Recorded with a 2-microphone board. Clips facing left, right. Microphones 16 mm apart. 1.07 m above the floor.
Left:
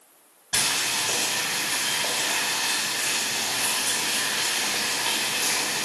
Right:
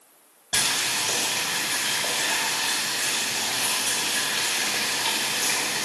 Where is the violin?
I don't hear a violin.